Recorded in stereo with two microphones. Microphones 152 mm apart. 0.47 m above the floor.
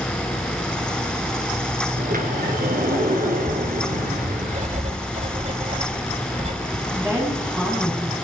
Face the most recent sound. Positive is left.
turn(degrees=-10)  # may be behind; listen again after turning